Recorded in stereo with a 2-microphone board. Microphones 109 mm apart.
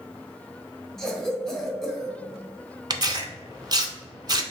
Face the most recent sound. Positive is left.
turn(degrees=-40)  # may be behind; listen again after turning